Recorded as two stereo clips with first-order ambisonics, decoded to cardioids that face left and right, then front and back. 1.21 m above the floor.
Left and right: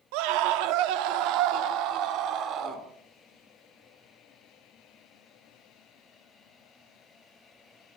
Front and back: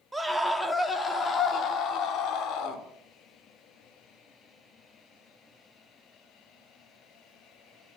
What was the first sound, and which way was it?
A scream, 95° right.